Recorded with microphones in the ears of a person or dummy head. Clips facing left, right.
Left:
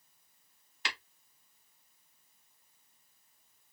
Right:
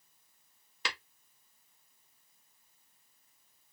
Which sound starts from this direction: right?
Tapping, at 0.8 s.